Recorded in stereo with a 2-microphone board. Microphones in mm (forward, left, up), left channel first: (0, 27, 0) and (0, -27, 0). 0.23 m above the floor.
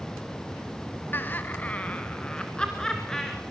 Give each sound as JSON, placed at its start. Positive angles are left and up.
{"t": 1.1, "sound": "laughter", "side_deg": 40, "distance_m": 1.4}